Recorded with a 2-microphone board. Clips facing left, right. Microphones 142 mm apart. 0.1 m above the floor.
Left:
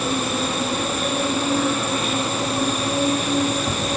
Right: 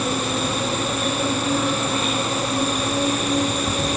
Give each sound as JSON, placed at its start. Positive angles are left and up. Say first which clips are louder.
{"t": 0.0, "sound": "an insect", "louder": "even", "side_deg": 0, "distance_m": 4.5}